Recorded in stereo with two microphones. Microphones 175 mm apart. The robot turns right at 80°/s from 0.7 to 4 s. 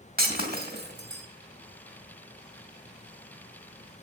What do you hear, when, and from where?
0.2 s breaking glass: 60° right (ahead or behind), 2 m; by 1.2 s 65° right (ahead or behind), 2 m